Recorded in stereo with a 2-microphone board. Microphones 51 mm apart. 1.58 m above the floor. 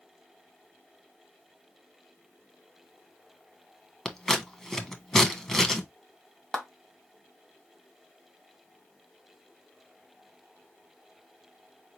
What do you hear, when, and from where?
4.0 s scissors: 10° left (ahead or behind), 0.9 m
6.5 s a clap: 15° left (ahead or behind), 1.7 m